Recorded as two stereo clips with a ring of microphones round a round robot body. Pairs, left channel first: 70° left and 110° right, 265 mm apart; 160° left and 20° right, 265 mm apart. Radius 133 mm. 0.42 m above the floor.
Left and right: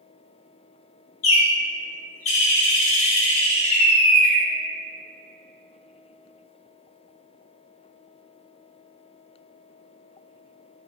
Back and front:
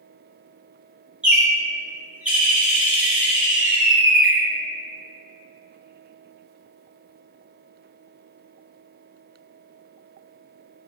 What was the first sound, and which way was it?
A bird, 60° left.